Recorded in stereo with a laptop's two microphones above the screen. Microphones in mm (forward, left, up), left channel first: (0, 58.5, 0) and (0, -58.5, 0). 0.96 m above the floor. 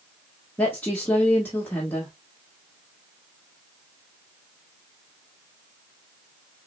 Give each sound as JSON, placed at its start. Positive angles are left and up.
{"t": 0.6, "sound": "a woman speaking", "side_deg": 15, "distance_m": 1.2}